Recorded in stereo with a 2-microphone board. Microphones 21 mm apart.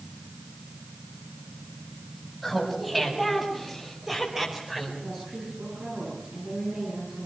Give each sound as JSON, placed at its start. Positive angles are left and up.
{"t": 2.4, "sound": "laughter", "side_deg": -5, "distance_m": 6.5}
{"t": 5.0, "sound": "a woman speaking", "side_deg": -65, "distance_m": 9.0}